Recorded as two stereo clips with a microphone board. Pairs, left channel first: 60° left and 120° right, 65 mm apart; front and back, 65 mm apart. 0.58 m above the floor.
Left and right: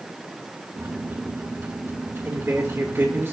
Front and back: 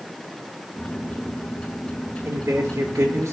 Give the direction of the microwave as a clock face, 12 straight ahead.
2 o'clock.